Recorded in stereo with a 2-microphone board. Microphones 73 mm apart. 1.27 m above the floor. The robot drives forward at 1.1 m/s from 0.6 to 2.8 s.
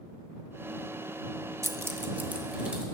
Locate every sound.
1.6 s keys jangling: 45° right (ahead or behind), 0.7 m; by 2.9 s 15° right (ahead or behind), 1.8 m